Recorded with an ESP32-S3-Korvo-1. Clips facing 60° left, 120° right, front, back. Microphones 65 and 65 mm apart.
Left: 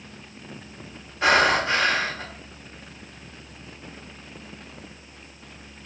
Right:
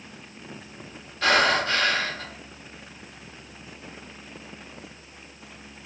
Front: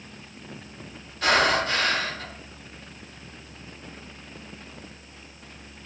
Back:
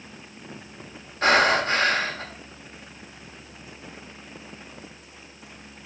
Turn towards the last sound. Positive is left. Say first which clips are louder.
# left 2 dB, back 2 dB
turn(degrees=125)